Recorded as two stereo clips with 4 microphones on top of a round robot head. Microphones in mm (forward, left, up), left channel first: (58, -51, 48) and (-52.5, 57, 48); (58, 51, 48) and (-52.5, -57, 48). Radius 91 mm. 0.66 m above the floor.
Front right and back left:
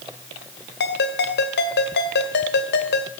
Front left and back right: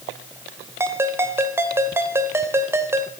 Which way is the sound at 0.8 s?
60° right.